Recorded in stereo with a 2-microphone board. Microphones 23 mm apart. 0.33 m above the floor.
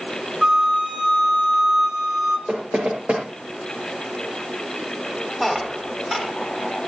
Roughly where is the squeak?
Centre.